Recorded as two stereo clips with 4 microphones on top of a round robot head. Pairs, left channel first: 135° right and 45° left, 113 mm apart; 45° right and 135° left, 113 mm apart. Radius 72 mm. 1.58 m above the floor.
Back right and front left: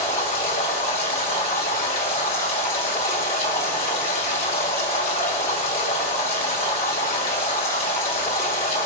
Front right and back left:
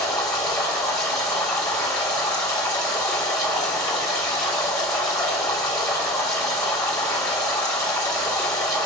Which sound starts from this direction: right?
Running water, at 0.0 s.